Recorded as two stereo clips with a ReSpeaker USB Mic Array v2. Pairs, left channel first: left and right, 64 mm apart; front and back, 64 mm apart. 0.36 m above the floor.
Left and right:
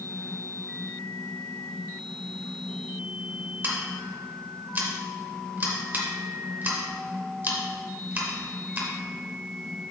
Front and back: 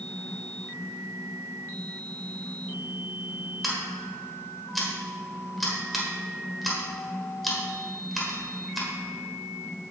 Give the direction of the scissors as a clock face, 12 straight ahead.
3 o'clock.